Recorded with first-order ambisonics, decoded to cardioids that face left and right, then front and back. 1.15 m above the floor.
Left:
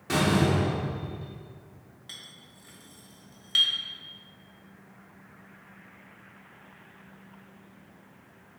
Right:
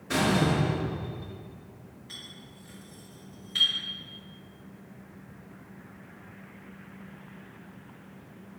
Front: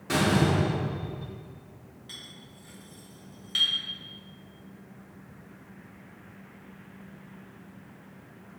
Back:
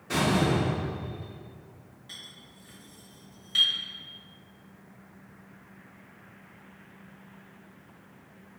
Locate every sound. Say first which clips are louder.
0.1 s a door slam: left 1 dB, front 1 dB; 50° left, 3 m
2.1 s a clink: right 1 dB, even; 75° left, 3 m